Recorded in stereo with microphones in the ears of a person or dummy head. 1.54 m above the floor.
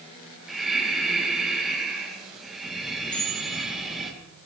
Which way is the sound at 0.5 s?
5° right (ahead or behind).